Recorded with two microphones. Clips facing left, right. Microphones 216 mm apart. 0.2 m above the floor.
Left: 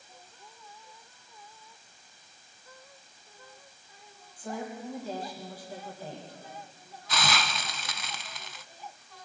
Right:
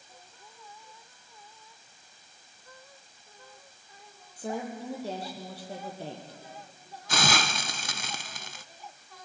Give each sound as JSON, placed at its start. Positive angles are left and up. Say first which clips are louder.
{"t": 4.4, "sound": "a woman speaking", "louder": "right 3 dB", "side_deg": -75, "distance_m": 6.0}
{"t": 7.1, "sound": "a hiss", "louder": "right 3 dB", "side_deg": -50, "distance_m": 0.5}